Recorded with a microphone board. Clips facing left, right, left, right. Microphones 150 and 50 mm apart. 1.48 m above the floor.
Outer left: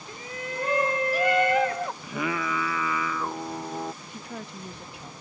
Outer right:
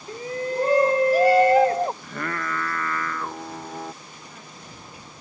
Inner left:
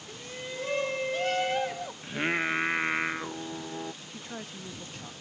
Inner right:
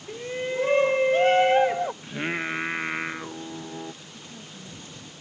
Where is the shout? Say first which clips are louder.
Outer right 9 dB, inner right 10 dB; 35° right (ahead or behind).